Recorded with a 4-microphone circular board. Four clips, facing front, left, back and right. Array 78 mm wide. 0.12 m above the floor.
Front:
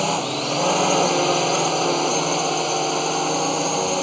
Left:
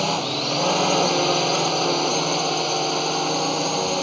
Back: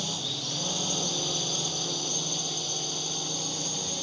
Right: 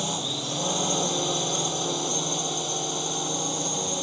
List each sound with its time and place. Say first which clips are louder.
0.0 s a drone: left 8 dB, front 15 dB; 30° left